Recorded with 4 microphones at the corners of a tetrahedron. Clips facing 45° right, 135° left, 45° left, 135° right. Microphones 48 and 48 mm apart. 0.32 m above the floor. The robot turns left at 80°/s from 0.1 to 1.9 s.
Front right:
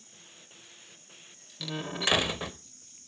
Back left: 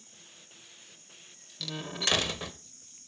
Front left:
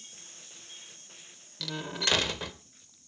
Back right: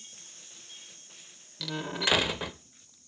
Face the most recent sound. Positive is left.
turn(degrees=-80)